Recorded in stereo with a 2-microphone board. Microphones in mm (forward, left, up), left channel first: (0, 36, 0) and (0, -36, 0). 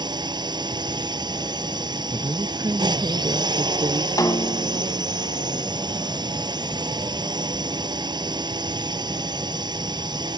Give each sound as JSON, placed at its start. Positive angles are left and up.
{"t": 0.0, "sound": "a drone", "side_deg": -75}
{"t": 2.1, "sound": "a woman speaking", "side_deg": -60}
{"t": 4.2, "sound": "a snare drum", "side_deg": 60}